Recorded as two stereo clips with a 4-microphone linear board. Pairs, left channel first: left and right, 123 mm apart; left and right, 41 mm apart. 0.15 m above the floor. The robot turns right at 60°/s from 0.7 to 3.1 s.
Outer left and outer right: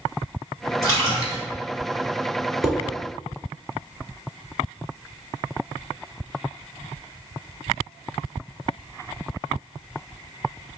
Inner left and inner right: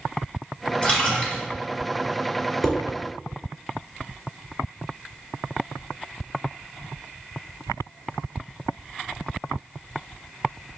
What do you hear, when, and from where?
0.8 s a splash: 30° left (ahead or behind), 1.8 m; by 1.4 s 25° left (ahead or behind), 1.8 m
2.6 s dishes clattering: 5° right (ahead or behind), 1.2 m; by 2.8 s 10° right (ahead or behind), 1.2 m